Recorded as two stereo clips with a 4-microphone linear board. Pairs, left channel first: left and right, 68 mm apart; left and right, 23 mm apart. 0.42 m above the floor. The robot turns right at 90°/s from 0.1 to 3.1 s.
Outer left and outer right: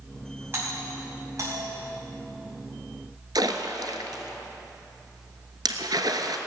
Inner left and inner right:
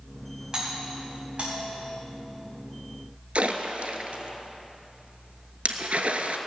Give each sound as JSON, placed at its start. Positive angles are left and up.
{"t": 0.5, "sound": "a doorbell", "side_deg": -35, "distance_m": 4.0}
{"t": 3.4, "sound": "a splash", "side_deg": -75, "distance_m": 1.0}